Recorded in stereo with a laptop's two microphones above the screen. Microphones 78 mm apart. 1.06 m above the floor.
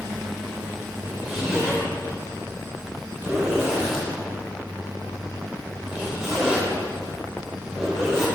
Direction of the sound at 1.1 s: 5° right (ahead or behind).